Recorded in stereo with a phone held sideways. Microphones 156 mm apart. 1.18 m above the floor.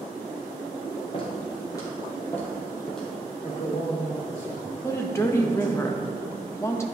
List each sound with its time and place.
1.1 s footsteps: 35° left (ahead or behind), 2 m; by 3.1 s 5° left (ahead or behind), 2.5 m
3.4 s a man speaking: 60° left (ahead or behind), 3 m
4.8 s a woman speaking: 15° left (ahead or behind), 0.8 m